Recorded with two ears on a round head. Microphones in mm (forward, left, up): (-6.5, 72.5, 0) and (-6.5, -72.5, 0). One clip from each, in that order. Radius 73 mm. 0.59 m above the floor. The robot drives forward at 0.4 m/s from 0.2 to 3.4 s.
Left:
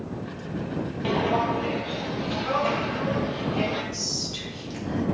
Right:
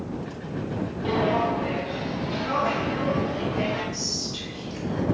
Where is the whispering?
50° left (ahead or behind), 1.7 m.